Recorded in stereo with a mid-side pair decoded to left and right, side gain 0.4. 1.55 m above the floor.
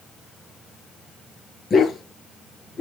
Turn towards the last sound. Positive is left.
turn(degrees=55)